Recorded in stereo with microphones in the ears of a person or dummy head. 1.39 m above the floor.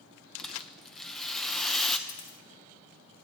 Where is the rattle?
5° left (ahead or behind), 0.6 m.